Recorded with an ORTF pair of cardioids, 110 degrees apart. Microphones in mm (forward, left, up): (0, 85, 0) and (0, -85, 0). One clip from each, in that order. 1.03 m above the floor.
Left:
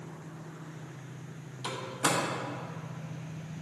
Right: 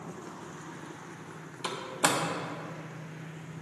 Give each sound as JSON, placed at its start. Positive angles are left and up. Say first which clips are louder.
{"t": 1.6, "sound": "a door slam", "louder": "right 2 dB", "azimuth_deg": -45, "distance_m": 1.5}